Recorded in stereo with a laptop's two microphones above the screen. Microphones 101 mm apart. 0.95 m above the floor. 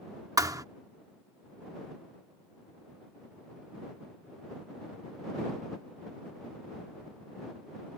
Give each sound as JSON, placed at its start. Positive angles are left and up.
{"t": 0.4, "sound": "a thud", "side_deg": -35}